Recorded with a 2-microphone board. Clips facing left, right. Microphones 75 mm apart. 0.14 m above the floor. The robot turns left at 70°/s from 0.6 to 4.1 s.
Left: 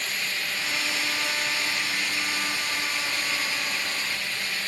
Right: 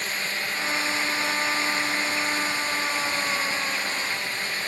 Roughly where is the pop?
I don't hear a pop.